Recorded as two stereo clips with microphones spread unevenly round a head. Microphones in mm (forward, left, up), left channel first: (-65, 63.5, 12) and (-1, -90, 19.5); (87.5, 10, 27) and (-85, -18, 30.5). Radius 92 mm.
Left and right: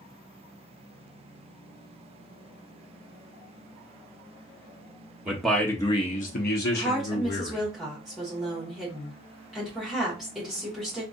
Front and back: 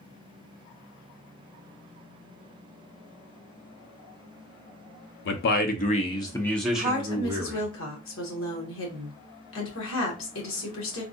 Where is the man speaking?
15° left, 0.8 m; by 7.7 s 120° left, 1.4 m.